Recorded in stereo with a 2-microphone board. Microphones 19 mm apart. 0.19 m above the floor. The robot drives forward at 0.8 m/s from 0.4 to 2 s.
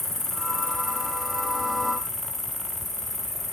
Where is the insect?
15° left (ahead or behind), 1.2 m; by 3.5 s 10° left (ahead or behind), 2.5 m.